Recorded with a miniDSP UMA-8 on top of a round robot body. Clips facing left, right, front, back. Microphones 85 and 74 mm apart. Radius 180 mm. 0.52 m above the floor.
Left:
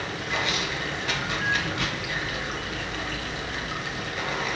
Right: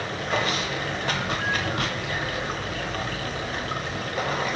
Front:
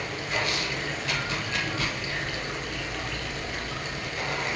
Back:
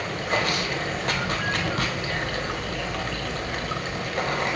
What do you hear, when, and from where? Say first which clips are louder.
0.0 s running water: right 3 dB, back 4 dB; 140° right, 1.1 m